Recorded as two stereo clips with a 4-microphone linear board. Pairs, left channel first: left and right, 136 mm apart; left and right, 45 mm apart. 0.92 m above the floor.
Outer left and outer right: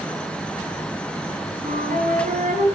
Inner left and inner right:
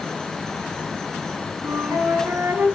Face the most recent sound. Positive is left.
turn(degrees=-85)